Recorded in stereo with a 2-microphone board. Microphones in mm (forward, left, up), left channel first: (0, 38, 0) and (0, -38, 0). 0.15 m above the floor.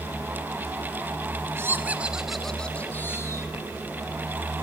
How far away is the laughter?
About 1.6 m.